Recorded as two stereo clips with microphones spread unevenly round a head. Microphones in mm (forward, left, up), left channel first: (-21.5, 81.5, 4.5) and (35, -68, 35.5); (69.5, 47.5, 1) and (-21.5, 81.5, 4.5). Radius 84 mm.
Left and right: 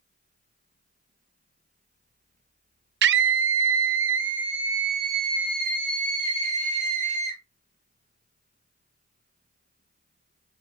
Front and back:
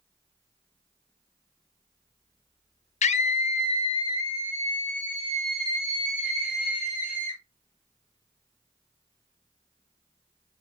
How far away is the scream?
About 0.7 m.